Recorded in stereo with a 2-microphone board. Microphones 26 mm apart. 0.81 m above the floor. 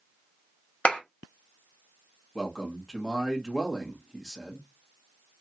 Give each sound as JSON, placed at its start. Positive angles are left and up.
{"t": 0.8, "sound": "a clap", "side_deg": 60, "distance_m": 1.4}
{"t": 2.4, "sound": "a man speaking", "side_deg": 15, "distance_m": 1.3}